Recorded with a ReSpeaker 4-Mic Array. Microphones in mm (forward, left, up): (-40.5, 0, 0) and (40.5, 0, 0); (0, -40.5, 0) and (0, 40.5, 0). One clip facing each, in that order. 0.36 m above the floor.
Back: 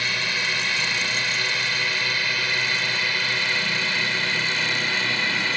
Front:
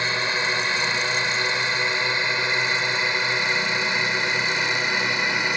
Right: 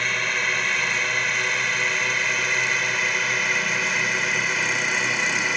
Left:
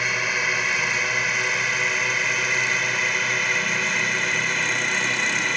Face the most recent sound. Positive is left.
turn(degrees=-15)